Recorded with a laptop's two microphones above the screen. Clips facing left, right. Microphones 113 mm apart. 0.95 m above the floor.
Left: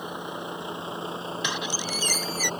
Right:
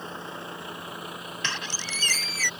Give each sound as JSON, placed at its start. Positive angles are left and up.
{"t": 0.0, "sound": "a vehicle", "side_deg": 15}
{"t": 1.4, "sound": "a squeak", "side_deg": 15}